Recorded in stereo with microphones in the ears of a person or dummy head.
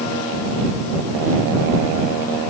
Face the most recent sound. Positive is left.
No sound to turn to.